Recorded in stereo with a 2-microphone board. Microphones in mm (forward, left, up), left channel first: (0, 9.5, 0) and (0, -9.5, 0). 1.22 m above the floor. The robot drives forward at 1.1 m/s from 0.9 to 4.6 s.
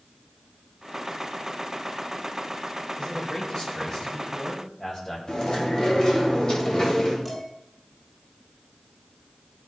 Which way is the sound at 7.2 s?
10° left (ahead or behind).